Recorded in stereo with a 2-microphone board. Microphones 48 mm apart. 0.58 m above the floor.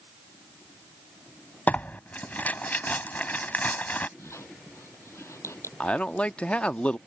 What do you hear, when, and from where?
1.7 s tearing paper: 35° left (ahead or behind)
4.2 s a squeak: 70° left (ahead or behind)
5.8 s a man speaking: 25° left (ahead or behind)